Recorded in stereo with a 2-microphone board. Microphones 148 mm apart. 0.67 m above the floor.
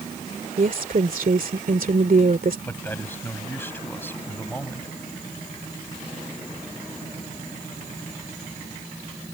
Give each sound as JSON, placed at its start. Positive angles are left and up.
{"t": 0.6, "sound": "a woman speaking", "side_deg": -70}
{"t": 2.7, "sound": "a man speaking", "side_deg": 15}